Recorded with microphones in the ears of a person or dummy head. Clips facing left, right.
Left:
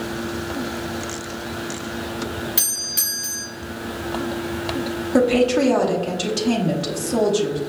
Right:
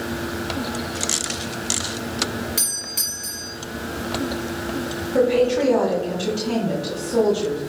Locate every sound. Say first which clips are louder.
2.6 s a doorbell: even; 10° left (ahead or behind), 1.0 m
5.1 s a woman speaking: left 1 dB; 65° left (ahead or behind), 0.9 m